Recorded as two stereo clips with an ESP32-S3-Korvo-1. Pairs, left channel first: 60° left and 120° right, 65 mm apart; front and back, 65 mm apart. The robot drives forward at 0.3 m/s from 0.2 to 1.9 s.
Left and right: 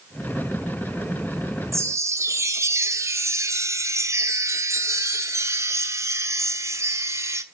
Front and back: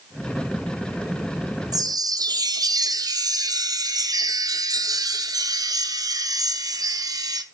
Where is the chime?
165° right, 0.7 m.